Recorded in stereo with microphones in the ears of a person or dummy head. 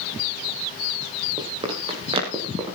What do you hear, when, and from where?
1.4 s running footsteps: 25° right (ahead or behind), 3.5 m